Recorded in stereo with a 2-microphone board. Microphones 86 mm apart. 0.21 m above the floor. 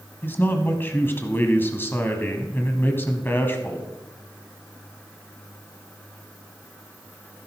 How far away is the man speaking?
About 1.2 m.